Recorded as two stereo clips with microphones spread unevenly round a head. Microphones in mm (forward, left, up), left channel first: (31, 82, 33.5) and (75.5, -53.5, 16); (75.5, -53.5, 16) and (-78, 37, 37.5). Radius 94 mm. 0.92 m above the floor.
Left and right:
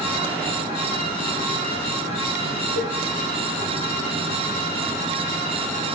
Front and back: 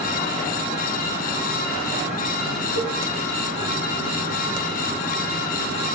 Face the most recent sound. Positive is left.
turn(degrees=-50)